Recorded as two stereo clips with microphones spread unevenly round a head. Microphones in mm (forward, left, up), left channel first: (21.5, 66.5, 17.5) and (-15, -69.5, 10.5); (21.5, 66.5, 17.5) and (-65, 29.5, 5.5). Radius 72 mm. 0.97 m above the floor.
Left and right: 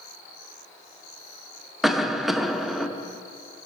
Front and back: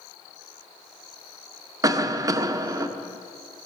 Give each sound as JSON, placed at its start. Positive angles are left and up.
{"t": 1.8, "sound": "a cough", "azimuth_deg": 170, "distance_m": 0.6}